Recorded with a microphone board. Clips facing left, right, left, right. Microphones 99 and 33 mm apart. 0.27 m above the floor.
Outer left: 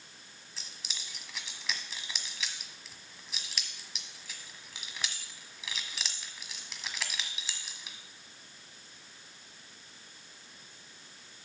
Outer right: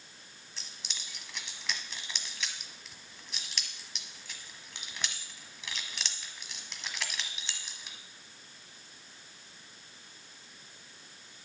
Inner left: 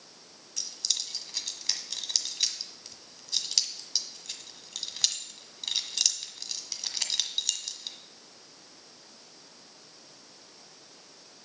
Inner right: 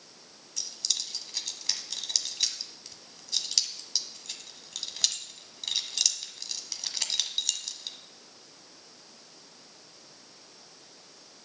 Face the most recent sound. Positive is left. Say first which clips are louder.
# even, even
turn(degrees=0)  # may be behind; listen again after turning